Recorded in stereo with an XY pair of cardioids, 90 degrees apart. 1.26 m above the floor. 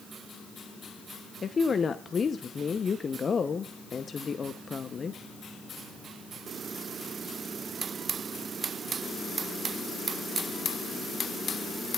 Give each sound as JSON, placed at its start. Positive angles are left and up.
{"t": 1.4, "sound": "a woman speaking", "azimuth_deg": 45, "distance_m": 0.6}